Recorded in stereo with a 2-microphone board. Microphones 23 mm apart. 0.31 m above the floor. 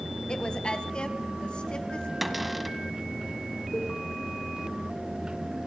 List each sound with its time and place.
0.3 s a woman speaking: 40° left (ahead or behind), 2.0 m; by 2.1 s 45° left (ahead or behind), 3.5 m
2.2 s a cupboard door: 5° right (ahead or behind), 1.4 m
3.7 s a cowbell: 65° left (ahead or behind), 5 m